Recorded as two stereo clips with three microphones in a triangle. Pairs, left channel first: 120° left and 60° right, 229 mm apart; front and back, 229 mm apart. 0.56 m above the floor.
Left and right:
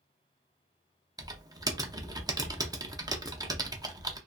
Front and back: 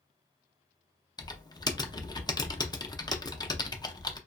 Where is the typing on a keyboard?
30° right, 0.5 m.